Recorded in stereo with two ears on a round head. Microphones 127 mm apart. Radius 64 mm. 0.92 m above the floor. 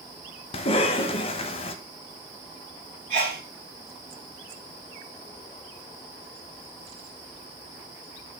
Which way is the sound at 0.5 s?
40° left (ahead or behind).